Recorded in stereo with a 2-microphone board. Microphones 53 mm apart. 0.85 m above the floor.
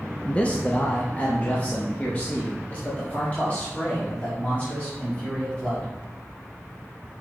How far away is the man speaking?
About 0.6 m.